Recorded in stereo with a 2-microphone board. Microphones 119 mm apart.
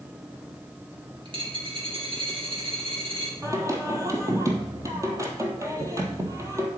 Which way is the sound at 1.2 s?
45° right (ahead or behind).